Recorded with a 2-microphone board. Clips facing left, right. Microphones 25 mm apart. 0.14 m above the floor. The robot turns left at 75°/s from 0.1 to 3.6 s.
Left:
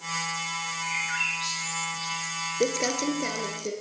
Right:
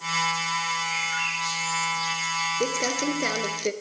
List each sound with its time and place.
0.8 s a bird: 60° left (ahead or behind), 6.5 m; by 2.5 s 60° right (ahead or behind), 6.5 m
2.6 s crumpling: 10° left, 1.2 m; by 3.7 s 65° right, 1.2 m